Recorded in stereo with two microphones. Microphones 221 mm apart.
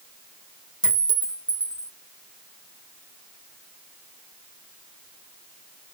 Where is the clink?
5° right (ahead or behind), 0.9 m.